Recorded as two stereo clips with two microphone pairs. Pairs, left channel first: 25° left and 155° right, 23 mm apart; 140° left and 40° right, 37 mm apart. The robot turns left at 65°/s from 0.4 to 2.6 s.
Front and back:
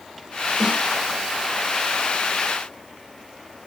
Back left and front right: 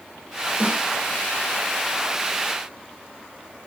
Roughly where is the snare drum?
Right.